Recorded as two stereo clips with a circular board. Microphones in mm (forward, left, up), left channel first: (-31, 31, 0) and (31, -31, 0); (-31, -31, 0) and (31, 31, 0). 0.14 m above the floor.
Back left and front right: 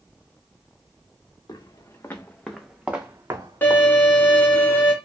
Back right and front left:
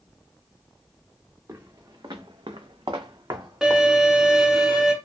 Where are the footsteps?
95° left, 0.8 m; by 3.8 s 5° right, 0.9 m.